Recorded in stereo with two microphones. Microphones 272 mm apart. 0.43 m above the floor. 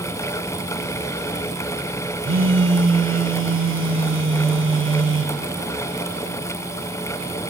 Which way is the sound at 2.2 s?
45° right (ahead or behind).